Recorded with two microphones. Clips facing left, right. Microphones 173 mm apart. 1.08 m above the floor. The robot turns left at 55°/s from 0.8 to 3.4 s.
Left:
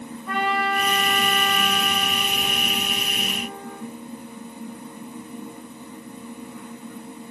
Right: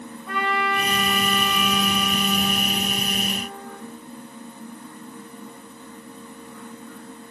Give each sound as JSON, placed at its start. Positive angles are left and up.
{"t": 0.3, "sound": "a trumpet", "azimuth_deg": 180, "distance_m": 3.0}